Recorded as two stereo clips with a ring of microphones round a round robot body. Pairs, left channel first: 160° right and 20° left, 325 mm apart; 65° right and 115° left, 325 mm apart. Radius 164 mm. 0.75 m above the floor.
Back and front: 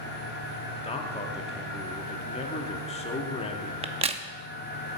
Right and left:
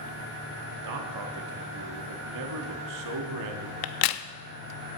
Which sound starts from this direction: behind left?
A man speaking, at 0.8 s.